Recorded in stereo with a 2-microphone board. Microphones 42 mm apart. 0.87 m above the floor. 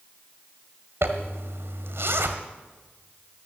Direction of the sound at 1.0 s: 75° right (ahead or behind).